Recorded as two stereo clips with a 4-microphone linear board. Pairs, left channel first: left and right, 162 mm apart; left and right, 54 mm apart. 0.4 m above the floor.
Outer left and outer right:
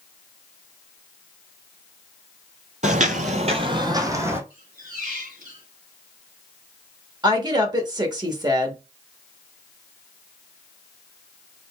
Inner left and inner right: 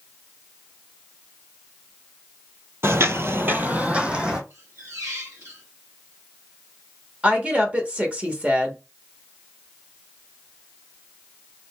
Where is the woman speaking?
25° right (ahead or behind), 1.0 m.